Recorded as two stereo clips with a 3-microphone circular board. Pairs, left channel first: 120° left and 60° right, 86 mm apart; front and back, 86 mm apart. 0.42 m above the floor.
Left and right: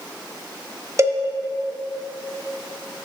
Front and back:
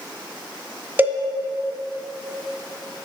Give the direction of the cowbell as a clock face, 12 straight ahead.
4 o'clock.